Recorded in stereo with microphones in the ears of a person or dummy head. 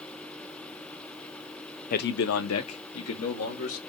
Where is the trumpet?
No trumpet in this recording.